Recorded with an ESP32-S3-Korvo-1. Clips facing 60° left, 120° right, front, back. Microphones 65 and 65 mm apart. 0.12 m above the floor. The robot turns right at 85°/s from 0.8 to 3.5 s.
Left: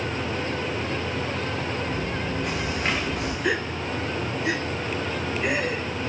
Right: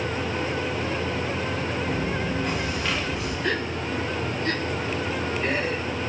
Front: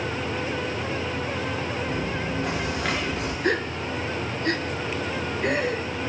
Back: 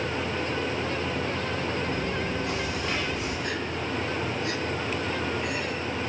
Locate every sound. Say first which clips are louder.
1.9 s chewing: right 2 dB, front 1 dB; 80° right, 7.5 m; by 3.3 s 45° left, 7.5 m
3.4 s a gasp: left 1 dB, front 5 dB; 25° right, 1.5 m; by 5.8 s 20° right, 1.5 m